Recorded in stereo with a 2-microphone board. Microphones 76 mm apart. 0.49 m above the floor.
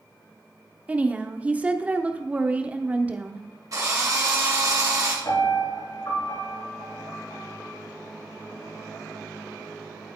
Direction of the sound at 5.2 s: 60° left (ahead or behind).